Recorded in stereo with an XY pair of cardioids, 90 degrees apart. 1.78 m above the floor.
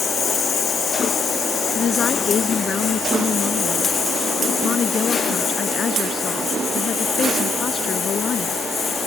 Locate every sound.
0.0 s a lawn mower: 55° left; by 9.1 s 50° left
1.8 s a woman speaking: 55° left